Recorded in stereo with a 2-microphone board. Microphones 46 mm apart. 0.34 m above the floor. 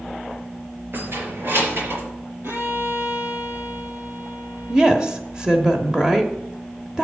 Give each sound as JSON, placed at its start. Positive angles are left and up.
{"t": 0.9, "sound": "keys jangling", "side_deg": -55, "distance_m": 5.5}
{"t": 2.4, "sound": "a violin", "side_deg": -65, "distance_m": 2.5}
{"t": 4.7, "sound": "a woman speaking", "side_deg": -15, "distance_m": 1.1}